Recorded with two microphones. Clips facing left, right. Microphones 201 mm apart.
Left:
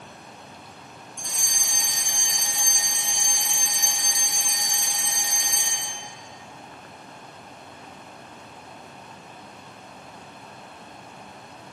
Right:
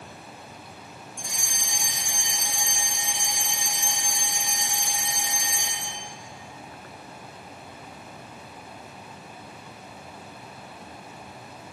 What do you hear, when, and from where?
1.2 s a fire alarm: 15° right (ahead or behind), 1.8 m